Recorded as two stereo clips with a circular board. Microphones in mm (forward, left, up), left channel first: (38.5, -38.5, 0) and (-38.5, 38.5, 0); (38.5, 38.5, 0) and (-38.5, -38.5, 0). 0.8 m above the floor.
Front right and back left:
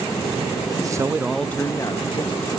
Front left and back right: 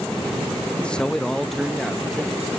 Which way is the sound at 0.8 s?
120° left.